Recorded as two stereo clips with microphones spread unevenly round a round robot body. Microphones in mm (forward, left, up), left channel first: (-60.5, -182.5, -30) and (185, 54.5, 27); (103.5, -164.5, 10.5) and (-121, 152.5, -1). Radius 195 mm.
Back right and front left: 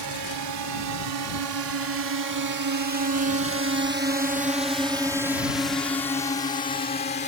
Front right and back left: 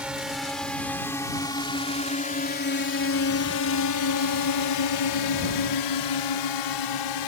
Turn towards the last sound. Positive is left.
turn(degrees=-75)